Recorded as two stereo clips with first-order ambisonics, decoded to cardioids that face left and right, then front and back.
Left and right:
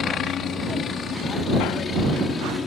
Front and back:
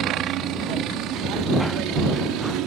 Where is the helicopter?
140° left; by 2.7 s 155° left.